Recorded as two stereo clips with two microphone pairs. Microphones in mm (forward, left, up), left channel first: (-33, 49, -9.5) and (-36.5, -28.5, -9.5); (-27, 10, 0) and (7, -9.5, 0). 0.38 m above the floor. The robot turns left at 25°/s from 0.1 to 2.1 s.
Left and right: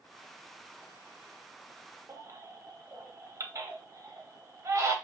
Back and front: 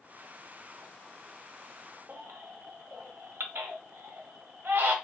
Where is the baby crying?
50° right, 0.6 m.